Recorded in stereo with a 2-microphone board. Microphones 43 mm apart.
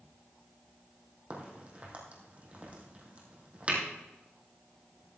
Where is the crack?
35° right (ahead or behind), 3.5 m.